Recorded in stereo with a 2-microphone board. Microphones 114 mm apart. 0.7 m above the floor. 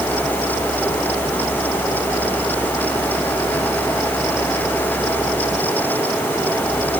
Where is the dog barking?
No dog barking in this recording.